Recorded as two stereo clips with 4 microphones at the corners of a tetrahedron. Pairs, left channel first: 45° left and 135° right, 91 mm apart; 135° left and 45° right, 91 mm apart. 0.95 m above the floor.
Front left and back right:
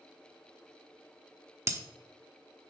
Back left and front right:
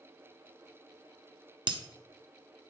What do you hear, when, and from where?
1.7 s breaking glass: 75° right, 1.0 m